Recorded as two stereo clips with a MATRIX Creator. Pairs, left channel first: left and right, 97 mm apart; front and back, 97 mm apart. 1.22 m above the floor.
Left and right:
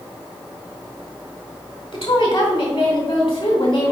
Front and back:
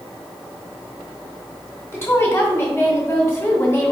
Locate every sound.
1.9 s a woman speaking: 70° left, 2 m